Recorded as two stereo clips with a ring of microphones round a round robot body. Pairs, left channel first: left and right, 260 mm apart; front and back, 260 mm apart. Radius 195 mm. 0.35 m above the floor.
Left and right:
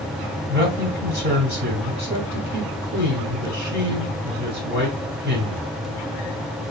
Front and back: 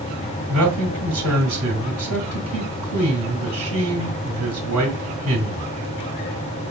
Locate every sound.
0.5 s a man speaking: 145° right, 1.9 m